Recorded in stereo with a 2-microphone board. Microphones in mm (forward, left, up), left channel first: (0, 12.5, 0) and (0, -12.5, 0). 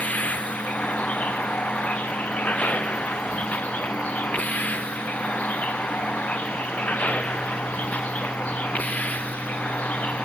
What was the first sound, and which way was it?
A vehicle, 70° left (ahead or behind).